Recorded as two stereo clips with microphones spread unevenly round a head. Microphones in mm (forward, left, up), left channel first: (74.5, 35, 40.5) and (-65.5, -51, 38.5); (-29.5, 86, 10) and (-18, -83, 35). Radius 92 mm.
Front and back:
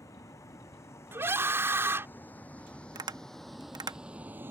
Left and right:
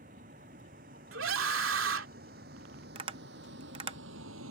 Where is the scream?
70° right.